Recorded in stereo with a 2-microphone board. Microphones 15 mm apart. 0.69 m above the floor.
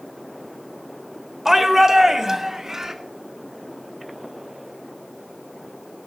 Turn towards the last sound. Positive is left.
turn(degrees=-25)  # may be behind; listen again after turning